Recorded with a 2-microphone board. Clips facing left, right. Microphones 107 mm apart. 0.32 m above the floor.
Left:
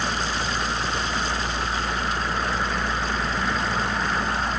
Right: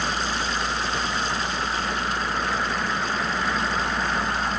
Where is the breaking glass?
No breaking glass in this recording.